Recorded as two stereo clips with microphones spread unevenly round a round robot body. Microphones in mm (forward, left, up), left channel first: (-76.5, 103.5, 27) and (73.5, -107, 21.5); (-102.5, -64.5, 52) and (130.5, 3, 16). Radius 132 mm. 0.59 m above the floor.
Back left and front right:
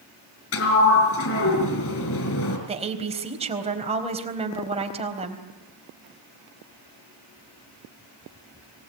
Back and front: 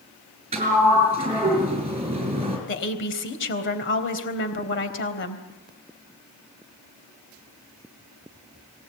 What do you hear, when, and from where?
0.5 s a sliding door: 85° left, 5 m
2.7 s a woman speaking: 120° right, 3.5 m